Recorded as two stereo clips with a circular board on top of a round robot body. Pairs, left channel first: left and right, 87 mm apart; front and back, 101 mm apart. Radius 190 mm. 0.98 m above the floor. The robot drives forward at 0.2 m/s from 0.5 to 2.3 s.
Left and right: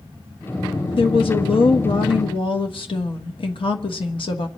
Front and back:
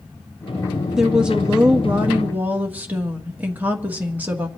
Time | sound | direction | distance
0.9 | a woman speaking | 95° left | 1.4 m